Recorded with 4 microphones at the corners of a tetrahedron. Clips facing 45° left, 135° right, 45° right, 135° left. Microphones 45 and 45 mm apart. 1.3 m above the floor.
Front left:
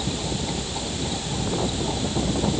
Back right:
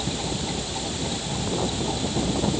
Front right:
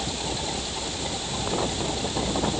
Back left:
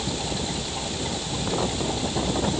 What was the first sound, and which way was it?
Only background noise.